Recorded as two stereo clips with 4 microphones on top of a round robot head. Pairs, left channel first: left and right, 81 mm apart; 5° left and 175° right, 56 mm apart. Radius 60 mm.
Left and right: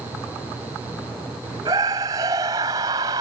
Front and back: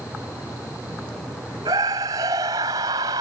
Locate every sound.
1.6 s a scream: 145° right